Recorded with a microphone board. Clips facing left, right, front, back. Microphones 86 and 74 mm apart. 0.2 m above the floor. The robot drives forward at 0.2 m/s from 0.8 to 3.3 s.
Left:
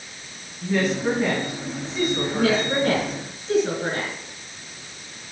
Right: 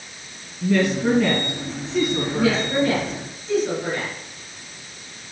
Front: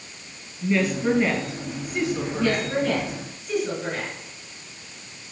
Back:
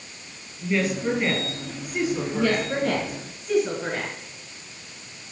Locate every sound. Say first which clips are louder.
0.6 s a woman speaking: right 3 dB, front 2 dB; 90° right, 3 m; by 2.7 s 95° right, 3.5 m
2.3 s a woman speaking: right 1 dB, front 1 dB; 130° left, 2 m; by 4.1 s 135° left, 2 m